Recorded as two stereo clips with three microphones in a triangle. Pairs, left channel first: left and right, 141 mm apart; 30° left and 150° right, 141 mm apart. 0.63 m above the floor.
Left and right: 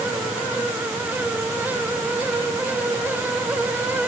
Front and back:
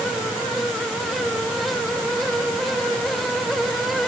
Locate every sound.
Only background noise.